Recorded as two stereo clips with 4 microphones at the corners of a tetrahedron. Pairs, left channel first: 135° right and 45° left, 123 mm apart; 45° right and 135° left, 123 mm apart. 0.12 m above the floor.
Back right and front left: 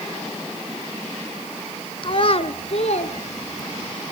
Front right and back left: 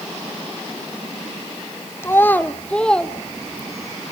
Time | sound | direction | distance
2.0 | a child speaking | 105° right | 1.3 m